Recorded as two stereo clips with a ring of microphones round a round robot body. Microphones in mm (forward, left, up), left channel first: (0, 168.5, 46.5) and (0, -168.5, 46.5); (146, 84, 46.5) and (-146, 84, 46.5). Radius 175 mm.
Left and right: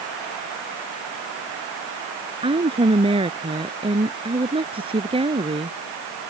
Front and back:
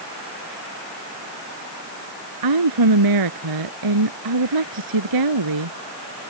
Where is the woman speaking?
165° right.